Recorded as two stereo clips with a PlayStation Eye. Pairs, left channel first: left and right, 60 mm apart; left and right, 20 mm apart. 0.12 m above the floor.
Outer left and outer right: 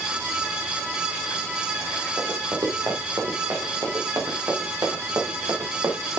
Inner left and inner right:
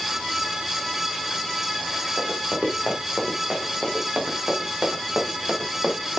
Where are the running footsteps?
85° right, 7 m; by 6.2 s 80° right, 7.5 m.